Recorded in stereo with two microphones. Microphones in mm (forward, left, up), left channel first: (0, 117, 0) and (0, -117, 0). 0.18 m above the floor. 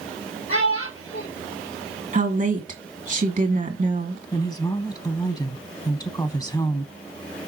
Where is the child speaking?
70° left (ahead or behind), 3.5 m.